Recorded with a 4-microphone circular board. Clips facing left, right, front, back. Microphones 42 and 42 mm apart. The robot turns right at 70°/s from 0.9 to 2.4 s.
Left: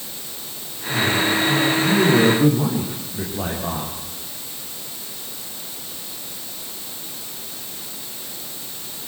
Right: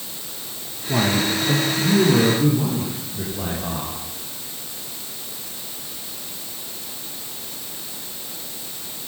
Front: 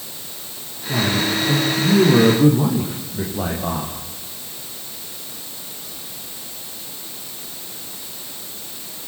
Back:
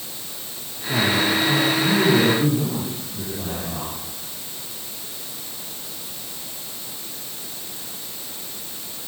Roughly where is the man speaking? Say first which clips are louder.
Left 1 dB, even; right.